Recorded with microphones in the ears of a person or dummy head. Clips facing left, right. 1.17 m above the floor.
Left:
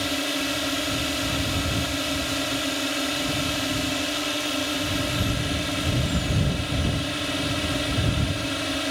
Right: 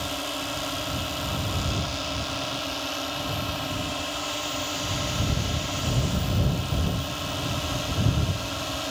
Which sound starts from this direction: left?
A drone, at 0.0 s.